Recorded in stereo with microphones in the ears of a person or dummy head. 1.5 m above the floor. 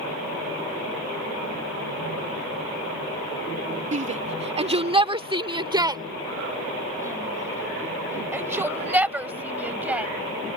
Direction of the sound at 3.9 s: 30° right (ahead or behind).